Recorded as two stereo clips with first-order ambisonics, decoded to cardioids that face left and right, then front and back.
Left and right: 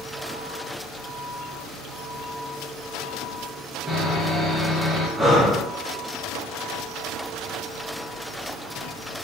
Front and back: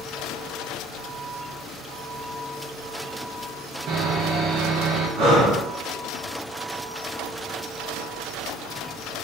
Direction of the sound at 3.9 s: 165° right.